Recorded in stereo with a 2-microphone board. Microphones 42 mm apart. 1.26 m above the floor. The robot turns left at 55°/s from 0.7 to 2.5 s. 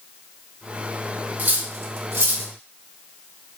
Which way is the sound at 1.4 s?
45° right (ahead or behind).